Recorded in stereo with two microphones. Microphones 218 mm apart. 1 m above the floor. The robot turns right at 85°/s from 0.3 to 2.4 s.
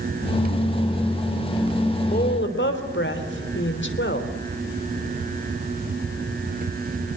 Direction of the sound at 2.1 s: 35° left (ahead or behind).